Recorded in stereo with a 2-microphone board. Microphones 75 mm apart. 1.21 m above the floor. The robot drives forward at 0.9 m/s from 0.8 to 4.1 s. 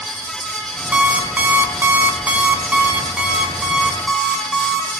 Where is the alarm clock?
20° right (ahead or behind), 1.1 m; by 4.9 s 10° right (ahead or behind), 2 m.